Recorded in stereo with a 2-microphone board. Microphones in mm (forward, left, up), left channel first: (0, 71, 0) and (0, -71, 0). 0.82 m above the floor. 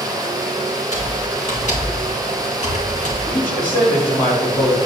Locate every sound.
0.9 s typing on a keyboard: 60° left (ahead or behind), 3 m
3.3 s a man speaking: 80° left, 4.5 m